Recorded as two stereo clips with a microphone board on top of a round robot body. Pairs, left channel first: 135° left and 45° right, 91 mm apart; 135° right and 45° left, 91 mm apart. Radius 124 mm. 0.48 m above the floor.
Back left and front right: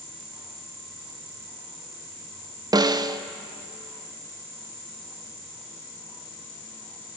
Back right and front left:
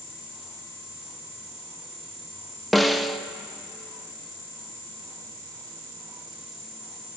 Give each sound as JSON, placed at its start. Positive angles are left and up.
{"t": 2.7, "sound": "a snare drum", "azimuth_deg": -45, "distance_m": 0.6}